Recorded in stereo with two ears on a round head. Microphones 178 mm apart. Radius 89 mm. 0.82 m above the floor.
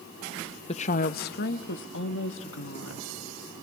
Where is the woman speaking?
30° left (ahead or behind), 0.6 m; by 3.1 s 75° left (ahead or behind), 1.9 m.